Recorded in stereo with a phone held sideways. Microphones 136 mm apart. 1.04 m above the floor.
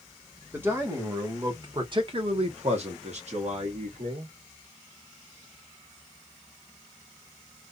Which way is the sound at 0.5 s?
15° right (ahead or behind).